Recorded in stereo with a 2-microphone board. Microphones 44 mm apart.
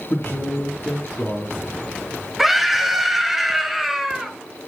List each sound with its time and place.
0.1 s a man speaking: 40° left (ahead or behind), 3.5 m
2.4 s a scream: 5° right (ahead or behind), 1.5 m